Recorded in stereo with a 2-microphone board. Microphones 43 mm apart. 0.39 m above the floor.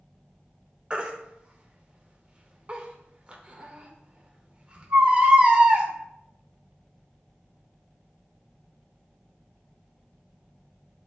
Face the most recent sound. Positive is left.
turn(degrees=-25)  # may be behind; listen again after turning